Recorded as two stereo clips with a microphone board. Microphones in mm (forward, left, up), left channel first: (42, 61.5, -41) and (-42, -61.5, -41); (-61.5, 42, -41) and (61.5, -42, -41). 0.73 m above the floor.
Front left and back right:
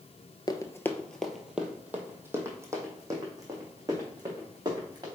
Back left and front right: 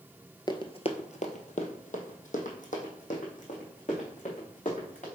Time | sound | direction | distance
0.5 | running footsteps | 100° left | 0.9 m